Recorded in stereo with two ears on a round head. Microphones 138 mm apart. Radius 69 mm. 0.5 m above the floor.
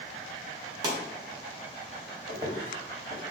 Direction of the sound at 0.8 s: 25° right (ahead or behind).